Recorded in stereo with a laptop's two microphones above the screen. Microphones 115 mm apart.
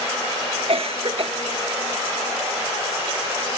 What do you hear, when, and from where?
0.7 s a cough: 60° right (ahead or behind)